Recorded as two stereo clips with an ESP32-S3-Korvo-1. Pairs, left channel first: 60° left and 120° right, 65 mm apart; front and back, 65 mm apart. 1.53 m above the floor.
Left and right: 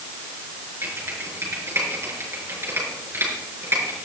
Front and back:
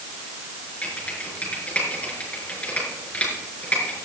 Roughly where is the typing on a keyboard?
Right.